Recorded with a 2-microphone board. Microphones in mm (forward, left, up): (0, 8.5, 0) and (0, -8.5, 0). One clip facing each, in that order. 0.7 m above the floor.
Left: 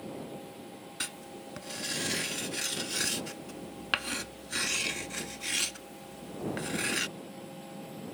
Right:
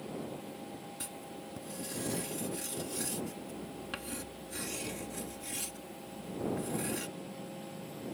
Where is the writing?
50° left (ahead or behind).